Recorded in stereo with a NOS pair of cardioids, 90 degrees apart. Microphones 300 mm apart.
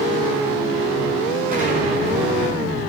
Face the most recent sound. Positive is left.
turn(degrees=-30)